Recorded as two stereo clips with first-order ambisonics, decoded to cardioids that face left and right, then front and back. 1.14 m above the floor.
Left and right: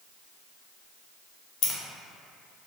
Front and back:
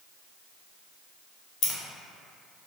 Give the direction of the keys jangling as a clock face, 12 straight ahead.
10 o'clock.